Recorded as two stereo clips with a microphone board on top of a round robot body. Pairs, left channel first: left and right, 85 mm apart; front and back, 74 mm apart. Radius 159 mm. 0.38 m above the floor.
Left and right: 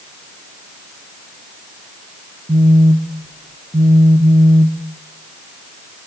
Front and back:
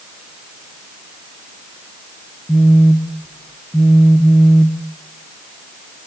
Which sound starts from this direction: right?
A phone buzzing, at 2.5 s.